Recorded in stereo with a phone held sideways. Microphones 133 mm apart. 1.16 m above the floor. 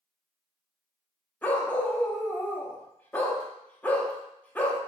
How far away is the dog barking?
About 0.7 m.